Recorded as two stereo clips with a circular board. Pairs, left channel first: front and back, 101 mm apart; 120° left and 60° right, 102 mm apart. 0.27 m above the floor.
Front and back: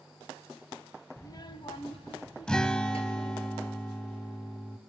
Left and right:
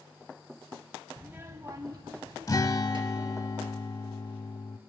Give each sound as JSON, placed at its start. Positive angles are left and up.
{"t": 1.2, "sound": "a child speaking", "azimuth_deg": 25, "distance_m": 0.6}
{"t": 2.5, "sound": "a guitar", "azimuth_deg": 80, "distance_m": 0.6}